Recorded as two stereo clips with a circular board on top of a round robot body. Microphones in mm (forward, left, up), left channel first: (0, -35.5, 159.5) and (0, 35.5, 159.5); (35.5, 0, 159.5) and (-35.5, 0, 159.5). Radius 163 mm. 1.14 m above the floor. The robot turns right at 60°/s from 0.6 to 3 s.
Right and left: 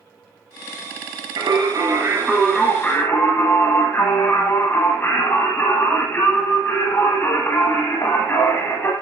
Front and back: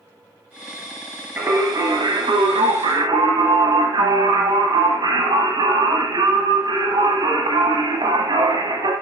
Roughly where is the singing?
Left.